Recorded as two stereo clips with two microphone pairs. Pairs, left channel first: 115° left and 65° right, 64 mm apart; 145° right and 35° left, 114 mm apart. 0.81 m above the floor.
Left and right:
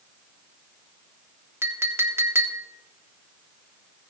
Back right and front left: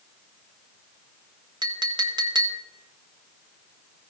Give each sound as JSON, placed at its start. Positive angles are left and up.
{"t": 1.6, "sound": "a clink", "azimuth_deg": -15, "distance_m": 1.3}